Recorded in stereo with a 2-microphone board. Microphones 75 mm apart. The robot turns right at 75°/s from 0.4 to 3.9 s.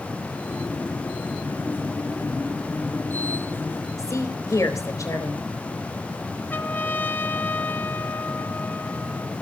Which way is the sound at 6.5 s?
25° left (ahead or behind).